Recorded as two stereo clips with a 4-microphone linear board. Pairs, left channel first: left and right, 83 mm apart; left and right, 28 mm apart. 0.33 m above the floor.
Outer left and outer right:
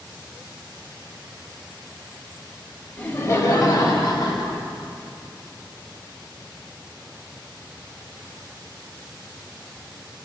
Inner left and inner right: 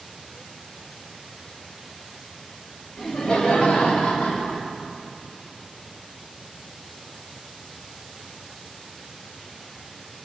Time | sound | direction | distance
3.0 | laughter | 20° left (ahead or behind) | 0.9 m